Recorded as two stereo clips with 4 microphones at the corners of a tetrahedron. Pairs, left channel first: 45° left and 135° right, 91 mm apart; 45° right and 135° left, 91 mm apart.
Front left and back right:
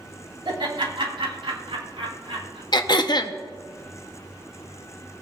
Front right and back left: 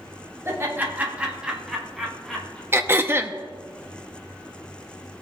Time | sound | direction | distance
0.5 | laughter | 165° right | 2.5 m
2.7 | throat clearing | 75° left | 0.6 m